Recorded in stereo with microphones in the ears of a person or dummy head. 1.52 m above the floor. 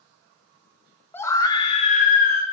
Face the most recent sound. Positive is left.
turn(degrees=50)  # may be behind; listen again after turning